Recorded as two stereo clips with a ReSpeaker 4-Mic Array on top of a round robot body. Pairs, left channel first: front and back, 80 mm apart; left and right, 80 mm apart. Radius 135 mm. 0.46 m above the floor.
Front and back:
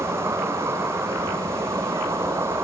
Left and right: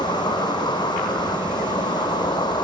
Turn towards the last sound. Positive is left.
turn(degrees=120)